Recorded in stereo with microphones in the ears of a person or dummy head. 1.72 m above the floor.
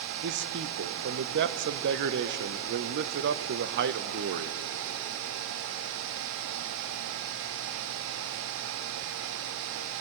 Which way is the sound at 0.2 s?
55° right (ahead or behind).